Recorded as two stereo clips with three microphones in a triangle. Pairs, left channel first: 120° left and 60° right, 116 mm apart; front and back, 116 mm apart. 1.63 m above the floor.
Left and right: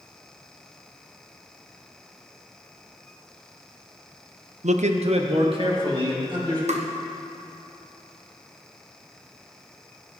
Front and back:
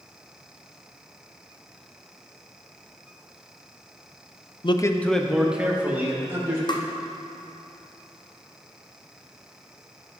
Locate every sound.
4.6 s a man speaking: 45° right, 0.6 m; by 6.6 s 110° right, 2.5 m
6.7 s tapping: 50° right, 0.8 m